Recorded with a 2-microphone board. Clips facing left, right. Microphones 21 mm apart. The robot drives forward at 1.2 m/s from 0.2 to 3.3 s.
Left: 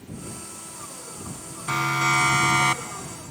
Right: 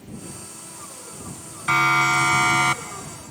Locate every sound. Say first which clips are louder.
1.7 s a siren: right 4 dB; 35° right (ahead or behind); by 3.3 s 25° right (ahead or behind)